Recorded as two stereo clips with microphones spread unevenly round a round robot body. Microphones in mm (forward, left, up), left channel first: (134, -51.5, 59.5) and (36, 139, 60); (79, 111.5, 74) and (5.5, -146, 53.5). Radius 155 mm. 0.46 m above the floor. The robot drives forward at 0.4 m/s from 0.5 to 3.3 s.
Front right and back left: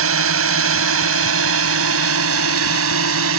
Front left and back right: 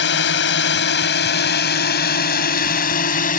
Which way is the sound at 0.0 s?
125° left.